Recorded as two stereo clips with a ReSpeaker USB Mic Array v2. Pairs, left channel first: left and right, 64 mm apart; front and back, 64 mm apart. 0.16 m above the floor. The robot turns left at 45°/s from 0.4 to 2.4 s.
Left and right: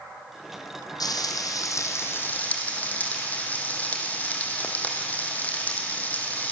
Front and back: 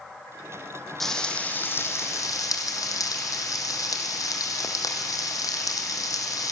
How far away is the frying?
About 2.5 m.